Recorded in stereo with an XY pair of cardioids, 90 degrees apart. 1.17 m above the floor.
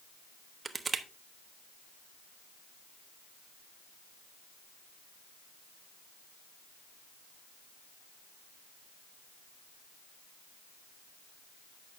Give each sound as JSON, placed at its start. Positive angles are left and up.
{"t": 0.7, "sound": "crushing", "azimuth_deg": -35, "distance_m": 0.8}